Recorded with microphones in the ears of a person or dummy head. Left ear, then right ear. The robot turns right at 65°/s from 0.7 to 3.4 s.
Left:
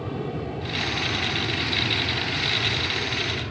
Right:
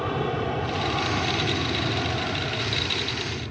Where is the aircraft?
45° right (ahead or behind); by 3.5 s 35° left (ahead or behind).